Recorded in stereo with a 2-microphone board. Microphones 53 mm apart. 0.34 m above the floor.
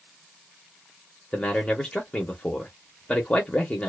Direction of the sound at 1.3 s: 20° left (ahead or behind).